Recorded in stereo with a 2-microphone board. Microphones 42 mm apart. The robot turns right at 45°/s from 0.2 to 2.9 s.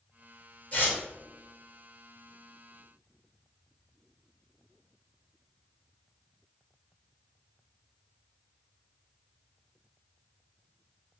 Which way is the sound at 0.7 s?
35° left (ahead or behind).